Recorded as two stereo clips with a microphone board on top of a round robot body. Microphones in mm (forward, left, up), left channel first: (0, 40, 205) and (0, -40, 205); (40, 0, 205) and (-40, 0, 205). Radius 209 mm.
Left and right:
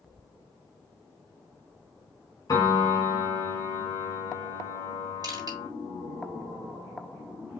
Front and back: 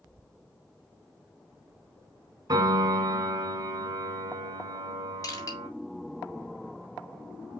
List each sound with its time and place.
2.5 s a piano: 135° left, 2 m
5.2 s crushing: 50° right, 2.5 m